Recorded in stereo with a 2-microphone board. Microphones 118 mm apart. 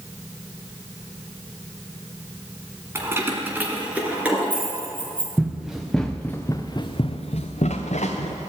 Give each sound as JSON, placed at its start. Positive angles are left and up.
{"t": 3.0, "sound": "keys jangling", "side_deg": -20, "distance_m": 1.8}
{"t": 5.4, "sound": "running footsteps", "side_deg": -10, "distance_m": 1.9}